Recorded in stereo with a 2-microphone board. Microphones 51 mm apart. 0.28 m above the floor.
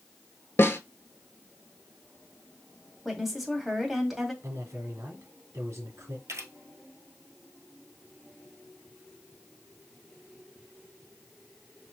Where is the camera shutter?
75° right (ahead or behind), 1.1 m.